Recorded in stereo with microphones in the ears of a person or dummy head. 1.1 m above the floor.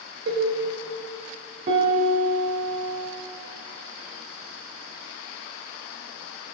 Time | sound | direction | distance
0.3 | a cowbell | 65° right (ahead or behind) | 2.5 m
1.7 | a piano | 40° right (ahead or behind) | 2.5 m